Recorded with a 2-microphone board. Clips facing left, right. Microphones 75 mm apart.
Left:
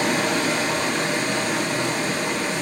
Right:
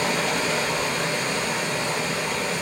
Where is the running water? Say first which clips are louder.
Left 3 dB; 70° left (ahead or behind), 2.5 m.